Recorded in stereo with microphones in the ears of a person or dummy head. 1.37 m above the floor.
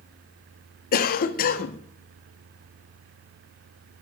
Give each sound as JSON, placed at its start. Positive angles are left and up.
{"t": 0.9, "sound": "a cough", "side_deg": 45, "distance_m": 1.2}